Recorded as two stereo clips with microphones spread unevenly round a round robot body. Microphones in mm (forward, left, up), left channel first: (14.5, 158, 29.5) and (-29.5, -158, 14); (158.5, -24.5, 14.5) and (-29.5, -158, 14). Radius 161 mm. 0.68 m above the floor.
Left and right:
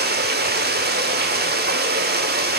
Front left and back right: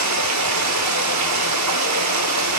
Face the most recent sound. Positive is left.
turn(degrees=-160)